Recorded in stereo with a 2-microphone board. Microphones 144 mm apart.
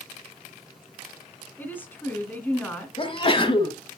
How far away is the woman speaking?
About 2 m.